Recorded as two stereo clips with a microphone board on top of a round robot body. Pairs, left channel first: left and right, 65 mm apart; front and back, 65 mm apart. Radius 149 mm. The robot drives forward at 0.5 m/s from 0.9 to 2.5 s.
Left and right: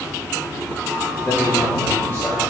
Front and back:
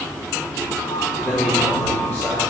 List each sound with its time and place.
1.2 s a man speaking: 35° left, 3.5 m; by 2.4 s 45° left, 3 m